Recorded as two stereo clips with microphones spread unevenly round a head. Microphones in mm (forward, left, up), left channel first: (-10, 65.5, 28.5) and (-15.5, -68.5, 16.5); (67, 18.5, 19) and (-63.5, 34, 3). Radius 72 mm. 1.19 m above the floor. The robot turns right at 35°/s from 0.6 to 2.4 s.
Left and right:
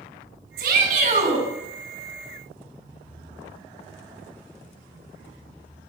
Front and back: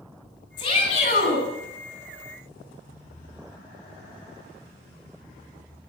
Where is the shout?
70° right, 9.5 m; by 1.4 s 40° right, 9.5 m.